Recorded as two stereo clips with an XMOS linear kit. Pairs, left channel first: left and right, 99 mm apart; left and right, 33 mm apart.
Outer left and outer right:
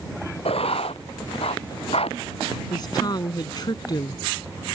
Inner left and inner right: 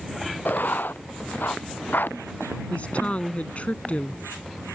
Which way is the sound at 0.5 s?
80° left.